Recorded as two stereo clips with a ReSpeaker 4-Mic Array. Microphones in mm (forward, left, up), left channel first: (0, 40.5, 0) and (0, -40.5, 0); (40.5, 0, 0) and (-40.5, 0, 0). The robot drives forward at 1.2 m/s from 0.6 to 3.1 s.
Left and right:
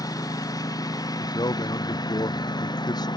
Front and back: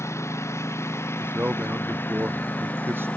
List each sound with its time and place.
0.0 s a lawn mower: 55° left; by 3.2 s 70° left
1.2 s a man speaking: 110° left; by 3.1 s 120° left